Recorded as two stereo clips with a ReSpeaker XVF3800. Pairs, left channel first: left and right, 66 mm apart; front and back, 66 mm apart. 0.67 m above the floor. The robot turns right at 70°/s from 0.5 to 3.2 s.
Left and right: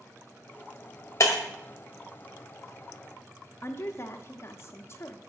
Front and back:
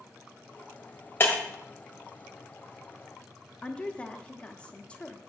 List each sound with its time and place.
1.2 s breaking glass: 50° left, 1.5 m; by 1.4 s 65° left, 1.5 m
3.6 s a woman speaking: 65° left, 0.9 m